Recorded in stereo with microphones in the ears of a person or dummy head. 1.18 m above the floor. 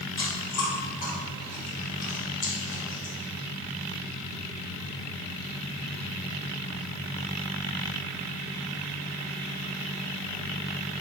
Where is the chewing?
40° left (ahead or behind), 1.9 m.